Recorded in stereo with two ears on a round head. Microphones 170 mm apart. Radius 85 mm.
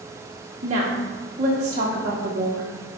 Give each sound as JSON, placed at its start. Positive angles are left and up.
{"t": 0.6, "sound": "a woman speaking", "side_deg": -40, "distance_m": 0.8}